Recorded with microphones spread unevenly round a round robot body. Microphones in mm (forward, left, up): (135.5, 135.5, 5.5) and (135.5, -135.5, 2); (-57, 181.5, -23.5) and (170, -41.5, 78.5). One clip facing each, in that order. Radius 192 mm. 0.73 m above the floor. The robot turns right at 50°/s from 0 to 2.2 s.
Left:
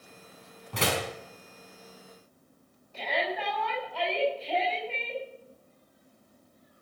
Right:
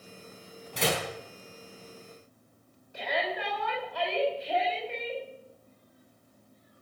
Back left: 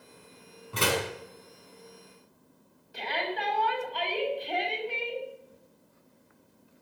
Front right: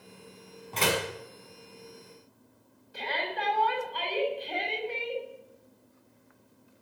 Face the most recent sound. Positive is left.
turn(degrees=-170)